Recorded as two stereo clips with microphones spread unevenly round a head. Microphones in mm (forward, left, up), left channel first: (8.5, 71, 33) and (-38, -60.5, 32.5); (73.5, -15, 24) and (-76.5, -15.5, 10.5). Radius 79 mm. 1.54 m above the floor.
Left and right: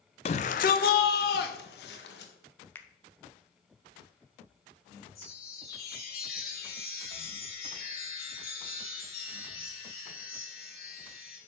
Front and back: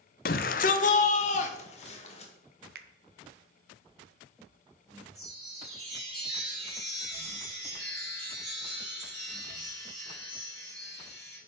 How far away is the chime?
About 3.5 m.